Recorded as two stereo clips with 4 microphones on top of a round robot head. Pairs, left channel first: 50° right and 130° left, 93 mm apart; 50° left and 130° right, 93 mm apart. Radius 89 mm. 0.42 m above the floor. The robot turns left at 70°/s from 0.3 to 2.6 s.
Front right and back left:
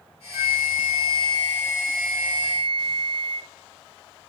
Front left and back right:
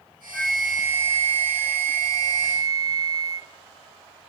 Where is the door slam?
I don't hear a door slam.